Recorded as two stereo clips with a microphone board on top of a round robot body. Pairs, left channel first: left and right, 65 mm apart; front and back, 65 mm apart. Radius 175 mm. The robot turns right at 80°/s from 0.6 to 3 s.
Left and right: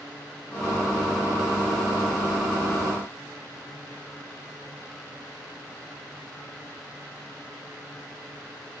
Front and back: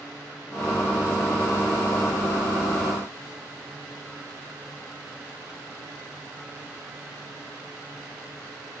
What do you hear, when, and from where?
Only background noise.